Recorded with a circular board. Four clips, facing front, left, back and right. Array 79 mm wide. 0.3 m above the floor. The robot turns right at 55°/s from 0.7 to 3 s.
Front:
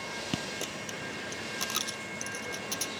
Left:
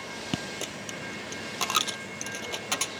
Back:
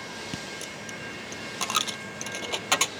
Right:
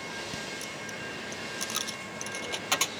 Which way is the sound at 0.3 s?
75° left.